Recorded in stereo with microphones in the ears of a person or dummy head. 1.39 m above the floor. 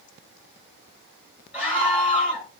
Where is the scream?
5° right (ahead or behind), 2.5 m.